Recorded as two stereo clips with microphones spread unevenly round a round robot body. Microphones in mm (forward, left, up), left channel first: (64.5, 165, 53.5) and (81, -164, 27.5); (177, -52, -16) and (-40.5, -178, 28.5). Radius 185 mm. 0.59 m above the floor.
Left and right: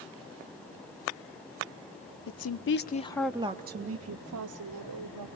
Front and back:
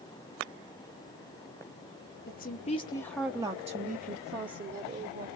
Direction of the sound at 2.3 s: 65° left.